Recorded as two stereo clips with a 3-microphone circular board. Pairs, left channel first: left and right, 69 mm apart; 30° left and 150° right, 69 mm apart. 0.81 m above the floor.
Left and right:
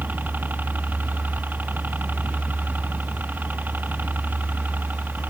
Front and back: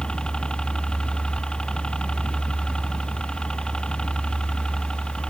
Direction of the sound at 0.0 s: 40° right.